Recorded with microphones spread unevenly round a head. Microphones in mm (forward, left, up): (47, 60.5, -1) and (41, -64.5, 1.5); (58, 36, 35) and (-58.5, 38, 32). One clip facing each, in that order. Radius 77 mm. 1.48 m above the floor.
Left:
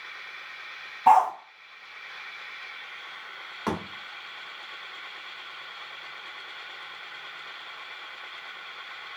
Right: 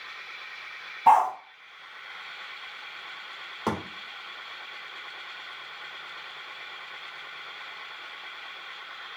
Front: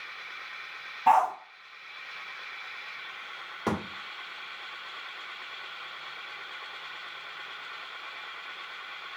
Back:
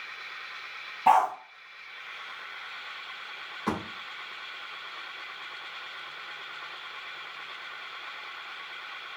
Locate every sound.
1.1 s a dog barking: straight behind, 0.9 m
3.7 s a thud: 30° right, 1.6 m